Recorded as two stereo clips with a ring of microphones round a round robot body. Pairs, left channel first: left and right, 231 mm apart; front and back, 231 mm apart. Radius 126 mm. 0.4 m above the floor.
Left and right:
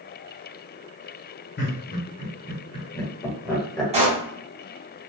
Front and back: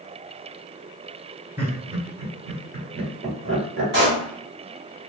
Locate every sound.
1.6 s laughter: 100° left, 1.3 m; by 3.8 s 175° left, 1.6 m
3.9 s a pop: 145° right, 1.8 m